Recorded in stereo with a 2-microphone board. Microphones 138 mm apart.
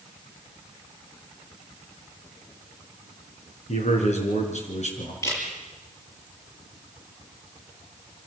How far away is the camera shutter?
About 7 m.